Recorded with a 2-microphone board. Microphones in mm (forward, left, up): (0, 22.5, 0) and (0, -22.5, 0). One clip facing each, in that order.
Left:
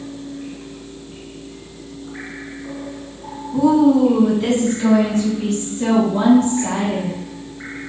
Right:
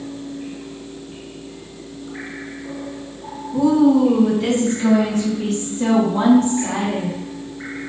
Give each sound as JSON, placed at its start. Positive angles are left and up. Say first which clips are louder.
{"t": 3.5, "sound": "a woman speaking", "louder": "left 1 dB", "side_deg": 15, "distance_m": 1.4}